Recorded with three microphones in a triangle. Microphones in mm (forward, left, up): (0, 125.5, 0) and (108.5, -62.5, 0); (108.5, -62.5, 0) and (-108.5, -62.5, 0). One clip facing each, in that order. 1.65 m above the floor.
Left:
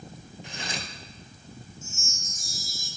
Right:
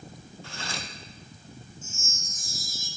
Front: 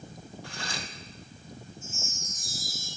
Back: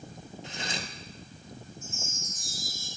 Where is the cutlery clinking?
155° left, 0.8 m.